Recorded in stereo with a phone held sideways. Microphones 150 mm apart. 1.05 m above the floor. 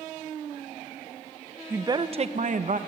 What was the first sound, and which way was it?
A woman speaking, 15° right (ahead or behind).